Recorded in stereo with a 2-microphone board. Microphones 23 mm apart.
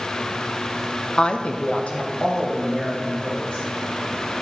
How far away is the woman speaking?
About 0.5 m.